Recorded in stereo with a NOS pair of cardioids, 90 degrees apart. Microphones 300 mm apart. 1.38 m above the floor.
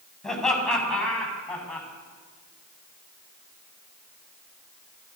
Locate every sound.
0.2 s laughter: straight ahead, 9 m; by 1.9 s 5° left, 10 m